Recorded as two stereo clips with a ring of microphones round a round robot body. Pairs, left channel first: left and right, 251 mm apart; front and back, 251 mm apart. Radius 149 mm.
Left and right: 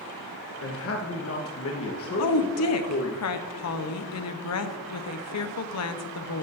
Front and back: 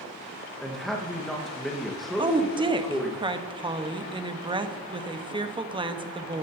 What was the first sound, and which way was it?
A man speaking, 90° left.